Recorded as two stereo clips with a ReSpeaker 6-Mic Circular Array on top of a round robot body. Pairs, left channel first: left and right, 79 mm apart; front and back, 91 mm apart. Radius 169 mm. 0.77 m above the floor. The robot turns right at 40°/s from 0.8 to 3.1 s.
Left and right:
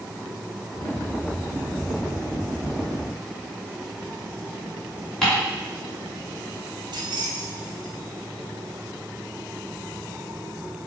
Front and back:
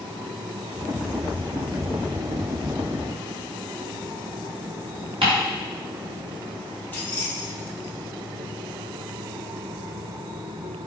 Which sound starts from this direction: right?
Keys jangling, at 6.9 s.